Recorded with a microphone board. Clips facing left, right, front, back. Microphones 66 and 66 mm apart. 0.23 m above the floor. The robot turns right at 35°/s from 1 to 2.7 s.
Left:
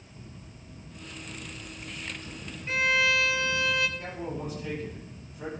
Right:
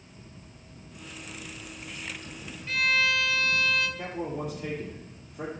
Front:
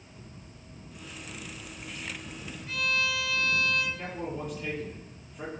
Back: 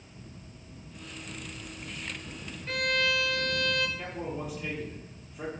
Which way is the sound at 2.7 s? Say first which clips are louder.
Left 1 dB, back 2 dB; 150° left.